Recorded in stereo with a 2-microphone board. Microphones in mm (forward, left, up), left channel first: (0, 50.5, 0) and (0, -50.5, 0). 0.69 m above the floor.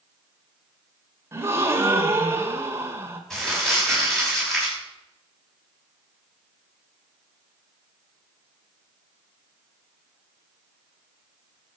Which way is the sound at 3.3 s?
5° left (ahead or behind).